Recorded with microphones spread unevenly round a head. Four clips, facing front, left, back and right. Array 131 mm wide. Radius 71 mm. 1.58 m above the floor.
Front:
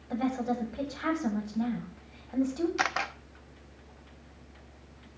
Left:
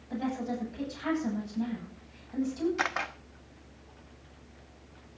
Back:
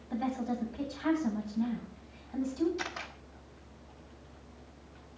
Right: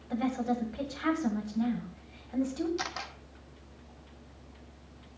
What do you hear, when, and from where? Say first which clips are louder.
0.1 s a woman speaking: right 3 dB, front 3 dB; 10° right, 9.5 m
2.8 s a camera shutter: left 6 dB, front 9 dB; 30° left, 1.2 m